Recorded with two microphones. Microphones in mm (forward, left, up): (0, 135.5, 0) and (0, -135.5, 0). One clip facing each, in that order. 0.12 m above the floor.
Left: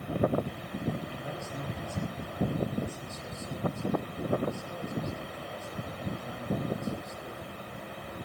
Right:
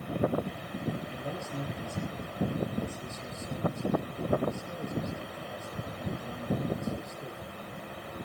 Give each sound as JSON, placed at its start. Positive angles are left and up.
{"t": 1.1, "sound": "a man speaking", "side_deg": -35, "distance_m": 4.5}